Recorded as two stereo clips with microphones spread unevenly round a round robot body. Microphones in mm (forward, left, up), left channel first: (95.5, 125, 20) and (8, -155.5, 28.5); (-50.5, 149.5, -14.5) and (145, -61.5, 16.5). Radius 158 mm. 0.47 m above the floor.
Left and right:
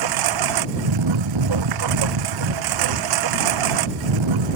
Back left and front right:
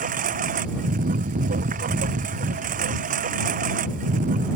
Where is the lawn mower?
115° right.